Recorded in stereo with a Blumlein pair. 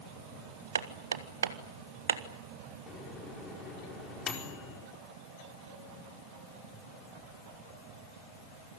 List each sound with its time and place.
0.8 s hammering: 70° right, 1.6 m
2.9 s a microwave: 25° left, 4.5 m